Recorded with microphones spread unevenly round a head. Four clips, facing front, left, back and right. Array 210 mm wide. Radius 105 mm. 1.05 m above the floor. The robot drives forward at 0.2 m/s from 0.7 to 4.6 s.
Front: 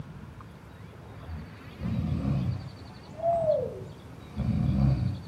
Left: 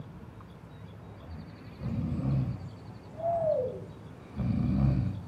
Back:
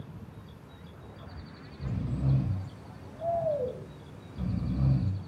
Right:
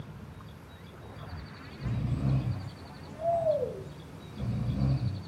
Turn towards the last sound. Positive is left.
turn(degrees=45)